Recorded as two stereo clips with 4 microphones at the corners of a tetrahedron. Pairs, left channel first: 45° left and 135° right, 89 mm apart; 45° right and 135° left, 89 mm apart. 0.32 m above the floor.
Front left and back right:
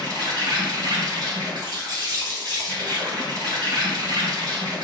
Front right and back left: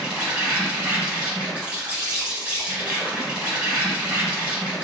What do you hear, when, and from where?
0.0 s an insect: 160° right, 2.0 m